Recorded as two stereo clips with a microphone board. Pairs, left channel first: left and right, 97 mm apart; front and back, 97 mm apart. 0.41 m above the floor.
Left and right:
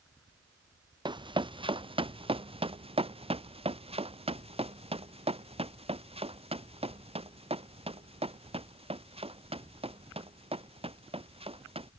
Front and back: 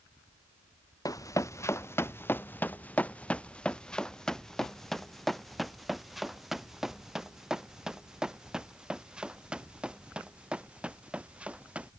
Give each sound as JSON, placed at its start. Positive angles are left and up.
{"t": 1.1, "sound": "running footsteps", "azimuth_deg": -55}